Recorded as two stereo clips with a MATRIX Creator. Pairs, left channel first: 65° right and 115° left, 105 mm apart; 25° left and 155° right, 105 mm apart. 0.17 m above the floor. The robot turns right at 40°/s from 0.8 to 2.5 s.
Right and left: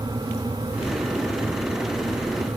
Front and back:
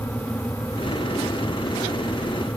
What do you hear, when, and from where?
Only background noise.